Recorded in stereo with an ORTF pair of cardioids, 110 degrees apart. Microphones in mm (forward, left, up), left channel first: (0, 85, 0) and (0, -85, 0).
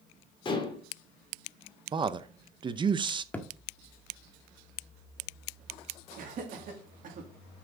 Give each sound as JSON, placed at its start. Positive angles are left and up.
{"t": 0.5, "sound": "dishes clattering", "azimuth_deg": 30, "distance_m": 2.5}
{"t": 1.9, "sound": "a man speaking", "azimuth_deg": -30, "distance_m": 0.7}
{"t": 3.3, "sound": "a thud", "azimuth_deg": 10, "distance_m": 1.3}
{"t": 6.2, "sound": "laughter", "azimuth_deg": -55, "distance_m": 2.5}